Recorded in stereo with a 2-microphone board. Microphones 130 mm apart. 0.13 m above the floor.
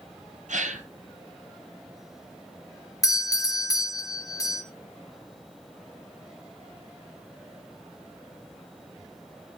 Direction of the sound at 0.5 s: 70° right (ahead or behind).